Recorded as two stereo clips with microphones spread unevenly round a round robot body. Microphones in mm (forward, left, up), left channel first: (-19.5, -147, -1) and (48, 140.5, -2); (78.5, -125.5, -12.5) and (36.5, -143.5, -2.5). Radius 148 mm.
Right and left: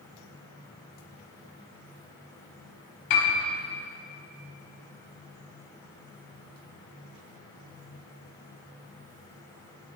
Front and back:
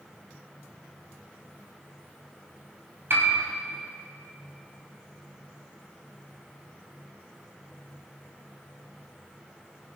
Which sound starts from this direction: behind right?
A piano, at 3.1 s.